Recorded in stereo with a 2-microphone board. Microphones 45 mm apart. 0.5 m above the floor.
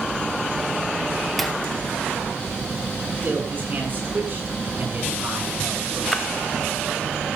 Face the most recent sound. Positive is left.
turn(degrees=10)  # may be behind; listen again after turning